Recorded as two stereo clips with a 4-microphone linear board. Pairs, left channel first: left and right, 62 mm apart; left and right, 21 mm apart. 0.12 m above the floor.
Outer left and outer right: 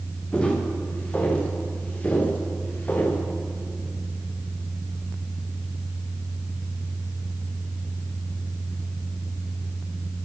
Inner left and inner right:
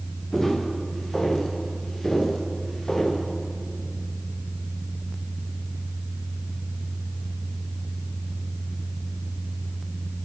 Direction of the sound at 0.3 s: 15° left (ahead or behind).